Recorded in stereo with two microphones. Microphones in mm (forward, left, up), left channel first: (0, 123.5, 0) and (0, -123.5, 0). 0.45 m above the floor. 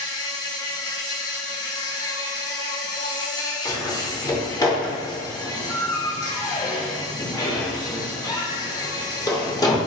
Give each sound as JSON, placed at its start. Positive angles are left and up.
{"t": 0.0, "sound": "an insect", "side_deg": 15, "distance_m": 1.0}
{"t": 3.6, "sound": "a door slam", "side_deg": 15, "distance_m": 0.7}